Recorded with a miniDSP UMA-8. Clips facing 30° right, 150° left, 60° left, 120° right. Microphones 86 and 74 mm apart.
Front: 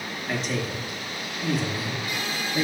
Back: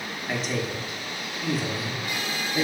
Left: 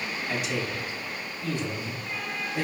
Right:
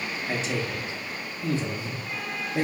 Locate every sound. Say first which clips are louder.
0.3 s a man speaking: even, right 1 dB; 120° right, 0.7 m